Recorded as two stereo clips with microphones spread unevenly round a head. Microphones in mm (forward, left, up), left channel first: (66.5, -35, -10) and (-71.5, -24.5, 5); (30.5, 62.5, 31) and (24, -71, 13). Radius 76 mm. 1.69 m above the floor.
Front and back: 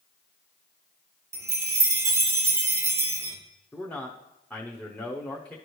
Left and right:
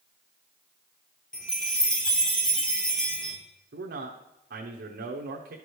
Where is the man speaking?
85° right, 0.8 m.